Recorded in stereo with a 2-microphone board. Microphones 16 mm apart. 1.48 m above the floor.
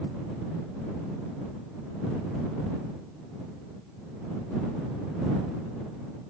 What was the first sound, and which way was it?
Only background noise.